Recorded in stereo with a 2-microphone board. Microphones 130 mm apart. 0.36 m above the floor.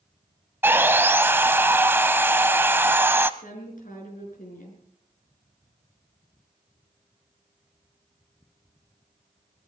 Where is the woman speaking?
75° left (ahead or behind), 6 m.